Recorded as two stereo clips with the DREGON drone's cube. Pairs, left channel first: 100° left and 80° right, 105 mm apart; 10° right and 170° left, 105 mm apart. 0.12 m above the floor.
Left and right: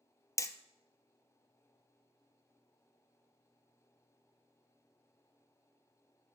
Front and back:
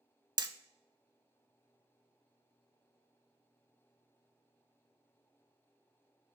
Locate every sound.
0.4 s hammering: 140° left, 0.5 m